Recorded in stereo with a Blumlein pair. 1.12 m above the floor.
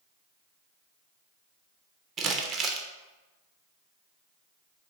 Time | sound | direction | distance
2.2 | crumpling | 30° right | 0.6 m